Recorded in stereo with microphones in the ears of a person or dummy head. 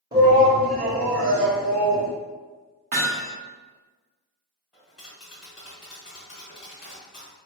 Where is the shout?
20° right (ahead or behind), 0.9 m; by 2.1 s 85° right, 0.8 m.